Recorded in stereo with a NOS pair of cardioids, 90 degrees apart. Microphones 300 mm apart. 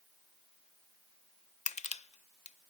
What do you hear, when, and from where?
1.7 s crushing: 25° left, 0.6 m